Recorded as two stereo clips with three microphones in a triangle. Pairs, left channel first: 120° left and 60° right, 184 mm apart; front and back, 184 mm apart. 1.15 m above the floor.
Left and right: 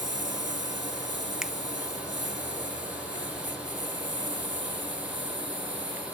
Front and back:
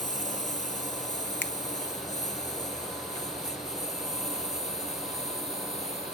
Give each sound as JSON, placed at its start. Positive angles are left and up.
{"t": 0.0, "sound": "a lawn mower", "azimuth_deg": -50}
{"t": 1.4, "sound": "a finger snap", "azimuth_deg": 25}